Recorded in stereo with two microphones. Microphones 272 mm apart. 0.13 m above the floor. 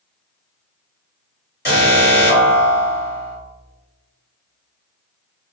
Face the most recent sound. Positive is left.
turn(degrees=40)  # may be behind; listen again after turning